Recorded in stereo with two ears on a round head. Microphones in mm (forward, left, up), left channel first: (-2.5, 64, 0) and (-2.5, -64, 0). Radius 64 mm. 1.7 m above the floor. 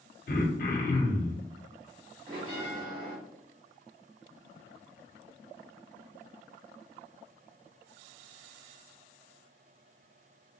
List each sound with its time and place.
0.3 s throat clearing: 60° left (ahead or behind), 0.6 m
2.3 s a bell: 40° right (ahead or behind), 1.5 m